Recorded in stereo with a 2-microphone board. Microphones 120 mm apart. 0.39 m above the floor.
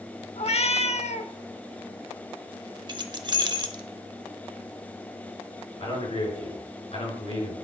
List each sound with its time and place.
0.4 s a cat meowing: 60° left (ahead or behind), 0.6 m
2.9 s keys jangling: 40° right (ahead or behind), 0.8 m
5.8 s a man speaking: 55° left (ahead or behind), 6 m